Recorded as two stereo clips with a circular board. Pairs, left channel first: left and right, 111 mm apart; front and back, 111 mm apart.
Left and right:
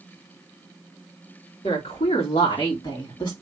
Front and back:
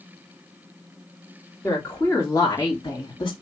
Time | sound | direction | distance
1.6 | a woman speaking | 70° left | 2.5 m